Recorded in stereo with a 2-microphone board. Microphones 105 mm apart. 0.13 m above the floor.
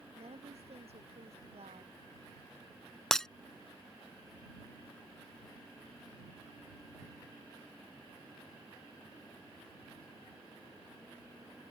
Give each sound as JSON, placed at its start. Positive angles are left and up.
{"t": 0.1, "sound": "a woman speaking", "side_deg": -75}
{"t": 3.1, "sound": "breaking glass", "side_deg": 5}